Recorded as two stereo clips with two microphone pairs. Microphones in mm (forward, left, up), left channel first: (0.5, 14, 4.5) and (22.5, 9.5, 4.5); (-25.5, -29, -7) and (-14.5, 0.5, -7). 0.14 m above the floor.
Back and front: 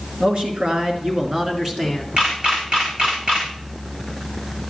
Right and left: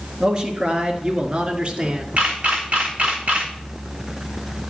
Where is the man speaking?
20° left, 1.9 m; by 2.1 s 65° left, 1.4 m.